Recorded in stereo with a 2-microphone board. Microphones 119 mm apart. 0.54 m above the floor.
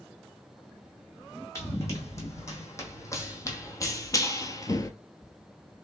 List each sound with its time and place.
1.6 s running footsteps: 25° left (ahead or behind), 2 m; by 4.9 s 30° left (ahead or behind), 0.6 m